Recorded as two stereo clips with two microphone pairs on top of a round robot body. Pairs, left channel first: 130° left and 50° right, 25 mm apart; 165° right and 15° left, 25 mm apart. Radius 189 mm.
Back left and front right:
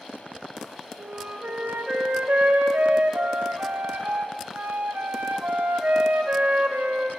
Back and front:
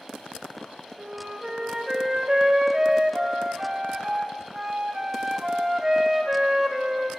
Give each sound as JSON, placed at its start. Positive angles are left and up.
{"t": 1.0, "sound": "a flute", "azimuth_deg": -55, "distance_m": 0.6}